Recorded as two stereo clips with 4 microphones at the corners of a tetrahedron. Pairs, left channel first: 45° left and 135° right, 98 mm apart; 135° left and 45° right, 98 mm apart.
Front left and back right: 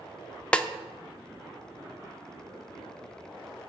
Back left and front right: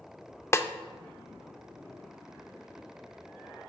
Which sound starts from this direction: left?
A snare drum, at 0.5 s.